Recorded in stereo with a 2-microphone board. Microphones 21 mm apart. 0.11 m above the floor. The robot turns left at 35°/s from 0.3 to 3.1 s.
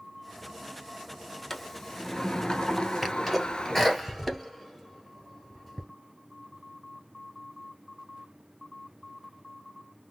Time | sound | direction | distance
1.5 | a sliding door | 165° left | 0.5 m
3.0 | a sneeze | centre (ahead or behind) | 2 m